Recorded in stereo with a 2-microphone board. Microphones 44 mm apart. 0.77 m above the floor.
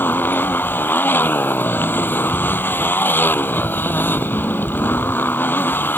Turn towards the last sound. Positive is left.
turn(degrees=50)  # may be behind; listen again after turning